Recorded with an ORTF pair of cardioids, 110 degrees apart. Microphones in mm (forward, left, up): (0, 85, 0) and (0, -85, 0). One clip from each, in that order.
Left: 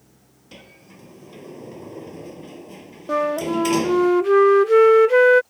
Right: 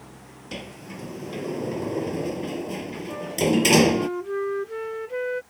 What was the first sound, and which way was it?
A sliding door, 50° right.